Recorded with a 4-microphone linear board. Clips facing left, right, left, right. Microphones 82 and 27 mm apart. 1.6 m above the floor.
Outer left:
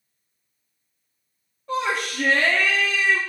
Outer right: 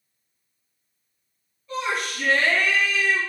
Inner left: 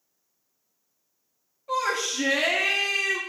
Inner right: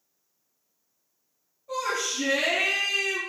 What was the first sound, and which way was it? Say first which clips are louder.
A shout: outer left 2 dB, inner left 2 dB; 60° left (ahead or behind).